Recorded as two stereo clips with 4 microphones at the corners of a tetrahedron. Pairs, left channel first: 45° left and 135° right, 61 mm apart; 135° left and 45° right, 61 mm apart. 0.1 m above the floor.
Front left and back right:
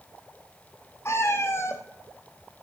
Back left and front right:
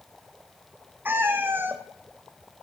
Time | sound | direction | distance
1.1 | a cat meowing | 5° left | 1.3 m